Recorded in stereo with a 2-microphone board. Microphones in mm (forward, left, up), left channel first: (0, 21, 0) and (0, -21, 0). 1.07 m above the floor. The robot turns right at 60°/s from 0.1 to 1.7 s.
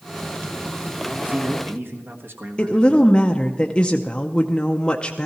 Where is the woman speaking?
20° left (ahead or behind), 0.6 m.